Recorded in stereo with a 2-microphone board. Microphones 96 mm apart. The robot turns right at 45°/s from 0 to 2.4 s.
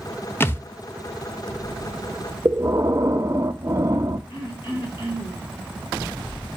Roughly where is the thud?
Left.